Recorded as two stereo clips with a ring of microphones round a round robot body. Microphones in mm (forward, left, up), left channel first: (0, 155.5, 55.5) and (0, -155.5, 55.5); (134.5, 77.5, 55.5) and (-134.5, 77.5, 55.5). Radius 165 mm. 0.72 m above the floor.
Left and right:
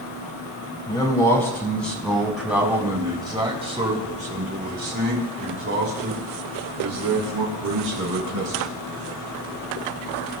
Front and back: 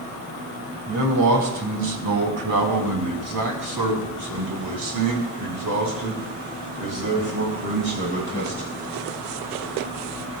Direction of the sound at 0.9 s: 170° left.